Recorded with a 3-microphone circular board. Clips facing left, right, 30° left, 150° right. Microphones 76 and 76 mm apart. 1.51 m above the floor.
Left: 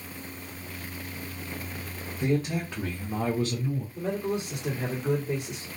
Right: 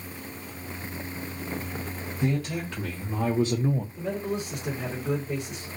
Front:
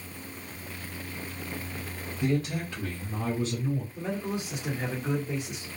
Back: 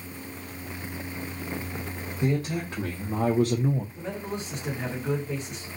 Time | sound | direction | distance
2.2 | a man speaking | 145° left | 1.9 m
4.0 | a man speaking | 110° left | 2 m